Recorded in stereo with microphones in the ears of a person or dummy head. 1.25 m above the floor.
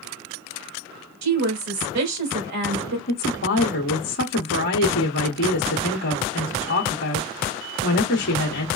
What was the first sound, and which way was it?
A woman speaking, 50° right (ahead or behind).